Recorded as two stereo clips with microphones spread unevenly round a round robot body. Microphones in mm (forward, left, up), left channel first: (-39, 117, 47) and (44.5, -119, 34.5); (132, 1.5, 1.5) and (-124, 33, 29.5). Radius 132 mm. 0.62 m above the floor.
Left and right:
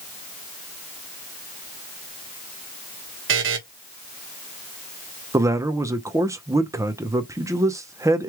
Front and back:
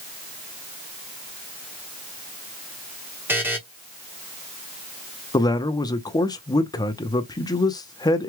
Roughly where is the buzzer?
Right.